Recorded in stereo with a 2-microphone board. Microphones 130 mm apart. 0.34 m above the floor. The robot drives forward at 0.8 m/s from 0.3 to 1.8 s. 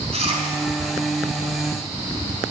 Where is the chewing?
55° right (ahead or behind), 2.5 m.